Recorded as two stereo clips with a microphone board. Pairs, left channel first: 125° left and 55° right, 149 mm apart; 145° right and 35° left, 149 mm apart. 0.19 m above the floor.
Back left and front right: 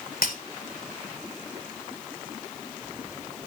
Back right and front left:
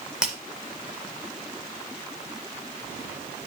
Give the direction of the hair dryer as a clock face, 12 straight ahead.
I don't hear a hair dryer.